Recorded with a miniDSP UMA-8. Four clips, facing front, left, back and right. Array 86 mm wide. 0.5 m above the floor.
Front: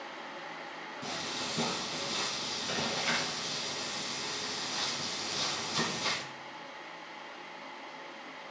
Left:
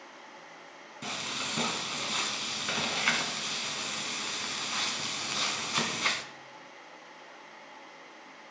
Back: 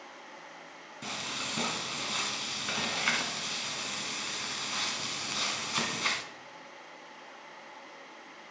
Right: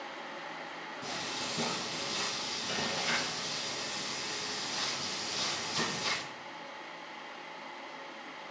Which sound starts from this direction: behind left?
Frying, at 1.0 s.